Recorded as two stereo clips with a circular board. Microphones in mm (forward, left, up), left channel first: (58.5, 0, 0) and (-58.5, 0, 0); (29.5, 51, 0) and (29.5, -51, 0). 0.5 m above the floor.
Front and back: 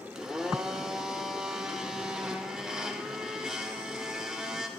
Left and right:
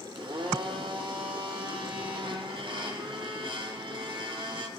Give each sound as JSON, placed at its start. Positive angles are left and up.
{"t": 0.1, "sound": "a blender", "azimuth_deg": -95, "distance_m": 0.9}